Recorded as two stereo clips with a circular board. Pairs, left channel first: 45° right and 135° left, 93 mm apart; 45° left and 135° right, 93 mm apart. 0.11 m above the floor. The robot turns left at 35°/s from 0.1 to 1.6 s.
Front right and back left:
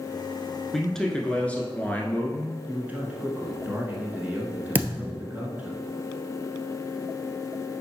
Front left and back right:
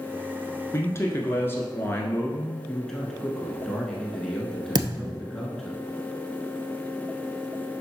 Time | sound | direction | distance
0.7 | a man speaking | 40° left | 1.2 m
2.7 | a man speaking | 120° left | 1.2 m
4.8 | a thud | 160° right | 1.0 m